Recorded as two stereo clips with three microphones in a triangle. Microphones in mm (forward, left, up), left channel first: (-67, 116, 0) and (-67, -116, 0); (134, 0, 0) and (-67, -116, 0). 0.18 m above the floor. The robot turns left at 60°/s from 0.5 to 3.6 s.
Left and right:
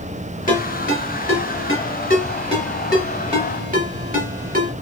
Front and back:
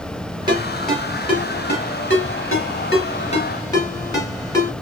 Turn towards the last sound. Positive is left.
turn(degrees=-45)